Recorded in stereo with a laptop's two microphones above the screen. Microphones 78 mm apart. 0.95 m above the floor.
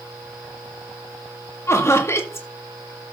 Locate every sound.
1.7 s laughter: 35° left (ahead or behind), 1.8 m